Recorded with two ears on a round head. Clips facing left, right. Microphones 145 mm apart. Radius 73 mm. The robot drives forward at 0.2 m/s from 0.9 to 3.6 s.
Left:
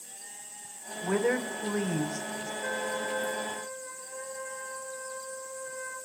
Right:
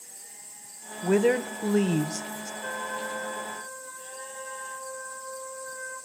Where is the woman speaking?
30° right (ahead or behind), 1.1 m; by 2.5 s 40° right (ahead or behind), 0.9 m.